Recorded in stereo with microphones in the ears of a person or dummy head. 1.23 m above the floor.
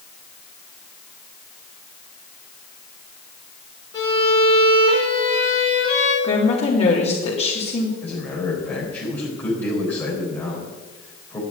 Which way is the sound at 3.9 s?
25° left (ahead or behind).